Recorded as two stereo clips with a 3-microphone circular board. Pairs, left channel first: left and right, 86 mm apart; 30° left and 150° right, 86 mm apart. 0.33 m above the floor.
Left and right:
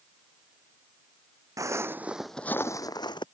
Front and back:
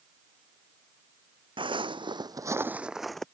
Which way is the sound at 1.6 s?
140° right.